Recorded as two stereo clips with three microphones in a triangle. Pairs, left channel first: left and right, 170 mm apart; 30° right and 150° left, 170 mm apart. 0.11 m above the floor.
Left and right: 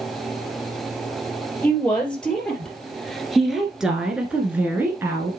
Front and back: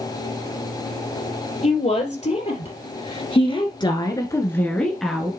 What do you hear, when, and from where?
1.6 s a woman speaking: 10° left, 3 m; by 5.3 s 130° right, 1.5 m